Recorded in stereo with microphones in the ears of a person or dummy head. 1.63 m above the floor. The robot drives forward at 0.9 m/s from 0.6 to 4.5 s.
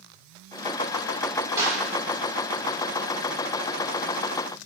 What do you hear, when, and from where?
1.6 s a clap: 15° right (ahead or behind), 4 m; by 1.8 s 20° right (ahead or behind), 3.5 m